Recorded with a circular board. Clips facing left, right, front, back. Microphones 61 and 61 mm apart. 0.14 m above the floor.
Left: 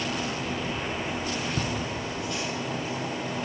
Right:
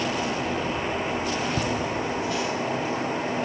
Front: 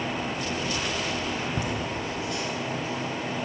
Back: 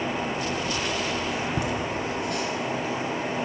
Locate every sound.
1.6 s laughter: 160° right, 1.1 m; by 3.5 s 140° right, 2.5 m